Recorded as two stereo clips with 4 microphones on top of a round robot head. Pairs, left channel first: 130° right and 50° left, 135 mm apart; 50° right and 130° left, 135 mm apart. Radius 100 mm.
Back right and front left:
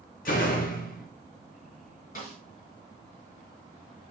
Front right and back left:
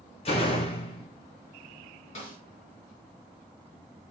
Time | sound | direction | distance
0.2 | a door slam | 100° right | 1.8 m
2.1 | a snare drum | 100° right | 5 m